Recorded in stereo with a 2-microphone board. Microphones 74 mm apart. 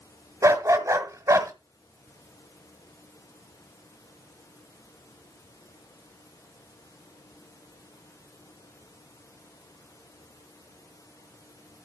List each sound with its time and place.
0.4 s a dog barking: 50° right (ahead or behind), 1.3 m